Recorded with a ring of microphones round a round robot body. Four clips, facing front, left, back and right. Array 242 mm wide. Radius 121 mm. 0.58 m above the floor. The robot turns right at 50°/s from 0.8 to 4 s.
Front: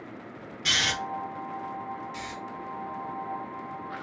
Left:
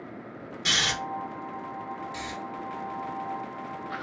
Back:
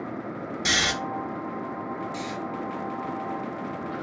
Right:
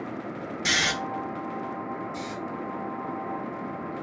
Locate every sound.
0.7 s snoring: 150° right, 1.0 m; by 0.9 s 145° right, 1.0 m
2.1 s snoring: 70° left, 0.9 m; by 2.4 s 80° left, 0.9 m